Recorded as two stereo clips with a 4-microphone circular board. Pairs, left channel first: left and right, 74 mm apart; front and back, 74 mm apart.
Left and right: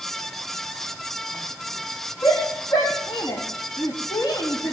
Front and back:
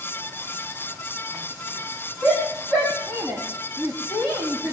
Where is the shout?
75° left, 4 m.